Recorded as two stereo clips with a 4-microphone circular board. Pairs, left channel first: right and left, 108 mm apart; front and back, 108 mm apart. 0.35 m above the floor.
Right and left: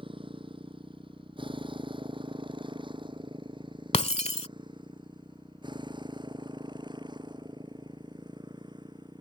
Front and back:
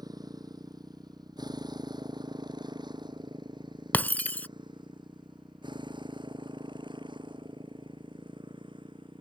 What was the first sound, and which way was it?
A motorcycle, 130° left.